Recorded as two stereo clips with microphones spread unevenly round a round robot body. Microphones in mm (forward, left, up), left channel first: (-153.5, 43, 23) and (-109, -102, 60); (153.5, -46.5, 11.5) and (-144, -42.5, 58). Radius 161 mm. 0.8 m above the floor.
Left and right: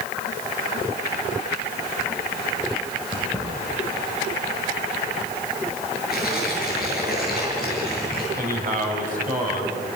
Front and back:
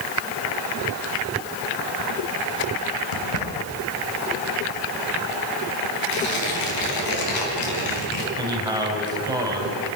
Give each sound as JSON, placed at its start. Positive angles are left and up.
{"t": 3.1, "sound": "keys jangling", "azimuth_deg": 10, "distance_m": 3.0}
{"t": 6.1, "sound": "tearing paper", "azimuth_deg": 15, "distance_m": 5.0}
{"t": 8.4, "sound": "a man speaking", "azimuth_deg": -100, "distance_m": 5.0}